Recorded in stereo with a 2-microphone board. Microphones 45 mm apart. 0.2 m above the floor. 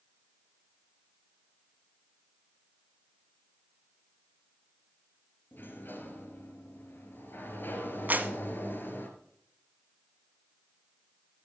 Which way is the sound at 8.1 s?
40° right (ahead or behind).